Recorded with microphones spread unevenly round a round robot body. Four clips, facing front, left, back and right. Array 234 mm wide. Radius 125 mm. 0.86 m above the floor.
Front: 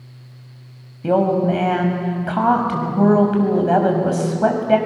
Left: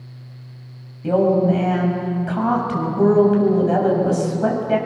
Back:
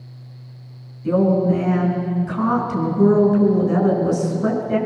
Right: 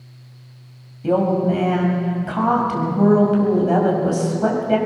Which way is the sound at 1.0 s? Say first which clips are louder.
Left 2 dB, even; 5° right.